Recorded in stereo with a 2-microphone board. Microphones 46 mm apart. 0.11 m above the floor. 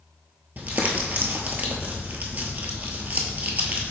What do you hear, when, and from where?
0.6 s crumpling: 40° right (ahead or behind), 0.8 m